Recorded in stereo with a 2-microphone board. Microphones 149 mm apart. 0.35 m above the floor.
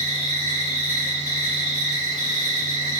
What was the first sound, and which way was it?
An insect, 50° right (ahead or behind).